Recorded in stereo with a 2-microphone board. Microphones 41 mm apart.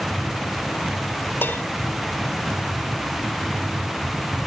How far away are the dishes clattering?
About 2 m.